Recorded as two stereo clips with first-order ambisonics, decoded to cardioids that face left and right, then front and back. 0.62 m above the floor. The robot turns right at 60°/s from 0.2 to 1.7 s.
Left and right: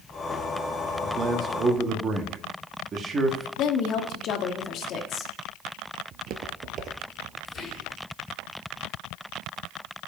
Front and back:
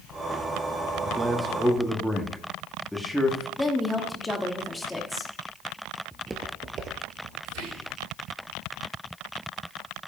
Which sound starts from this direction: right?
Footsteps, at 6.1 s.